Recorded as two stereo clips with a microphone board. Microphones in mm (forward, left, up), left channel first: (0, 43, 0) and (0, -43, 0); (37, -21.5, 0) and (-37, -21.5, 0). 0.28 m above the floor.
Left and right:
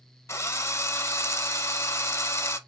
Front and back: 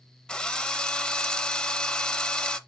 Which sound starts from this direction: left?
A drill, at 0.3 s.